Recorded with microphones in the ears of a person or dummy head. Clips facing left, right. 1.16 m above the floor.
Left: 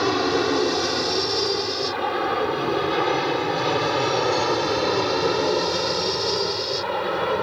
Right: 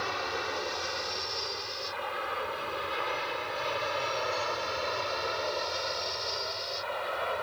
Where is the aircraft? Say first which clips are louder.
Left 15 dB; 65° left (ahead or behind); by 7.5 s 60° left (ahead or behind).